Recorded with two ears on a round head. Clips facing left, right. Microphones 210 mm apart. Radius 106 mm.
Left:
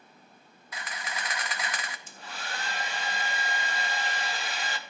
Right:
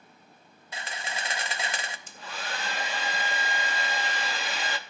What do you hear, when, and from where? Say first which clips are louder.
0.7 s a camera shutter: right 2 dB; 25° right (ahead or behind), 0.6 m
2.1 s a hair dryer: right 3 dB; 60° right (ahead or behind), 0.7 m